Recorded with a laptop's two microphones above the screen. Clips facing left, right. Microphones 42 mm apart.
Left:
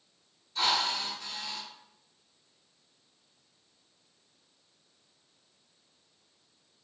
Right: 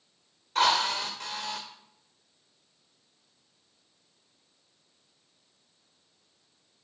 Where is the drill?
55° right (ahead or behind), 1.7 m.